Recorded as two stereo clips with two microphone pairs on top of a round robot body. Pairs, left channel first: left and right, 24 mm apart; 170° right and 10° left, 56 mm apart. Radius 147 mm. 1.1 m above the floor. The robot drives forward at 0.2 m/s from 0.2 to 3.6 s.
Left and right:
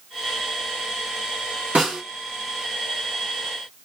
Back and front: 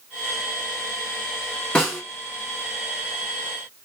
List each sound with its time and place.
1.8 s a snare drum: 95° right, 1.3 m; by 2.0 s 100° right, 1.3 m